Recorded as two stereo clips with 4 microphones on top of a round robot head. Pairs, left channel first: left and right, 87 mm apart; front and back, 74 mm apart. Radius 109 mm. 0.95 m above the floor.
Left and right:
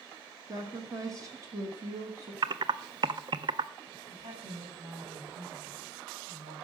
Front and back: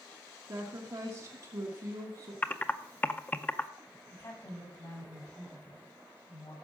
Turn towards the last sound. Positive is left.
turn(degrees=-50)